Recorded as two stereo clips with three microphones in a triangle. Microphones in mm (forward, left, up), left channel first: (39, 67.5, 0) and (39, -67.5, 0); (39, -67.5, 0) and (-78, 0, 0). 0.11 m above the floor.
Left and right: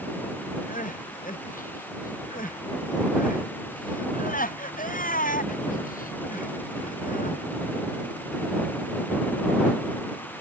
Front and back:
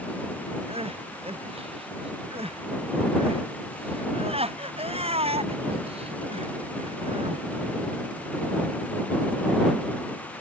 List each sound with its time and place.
0.7 s crying: 105° left